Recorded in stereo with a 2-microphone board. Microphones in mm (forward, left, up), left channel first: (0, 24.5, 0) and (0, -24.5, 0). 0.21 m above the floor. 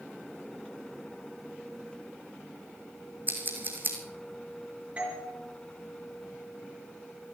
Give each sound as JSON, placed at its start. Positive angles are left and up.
{"t": 3.3, "sound": "scissors", "side_deg": -40, "distance_m": 2.5}
{"t": 5.0, "sound": "a doorbell", "side_deg": -25, "distance_m": 5.0}